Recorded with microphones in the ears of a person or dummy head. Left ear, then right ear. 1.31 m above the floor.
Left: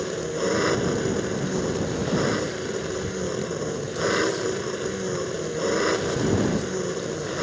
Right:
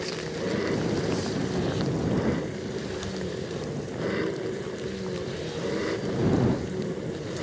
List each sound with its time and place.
0.0 s an engine running: 50° left (ahead or behind)